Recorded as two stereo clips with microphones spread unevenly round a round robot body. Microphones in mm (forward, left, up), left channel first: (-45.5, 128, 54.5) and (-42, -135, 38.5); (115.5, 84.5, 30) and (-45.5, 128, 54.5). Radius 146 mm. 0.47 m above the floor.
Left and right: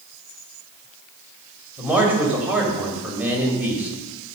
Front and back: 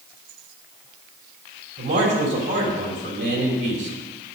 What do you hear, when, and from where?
1.8 s a man speaking: 170° right, 2.5 m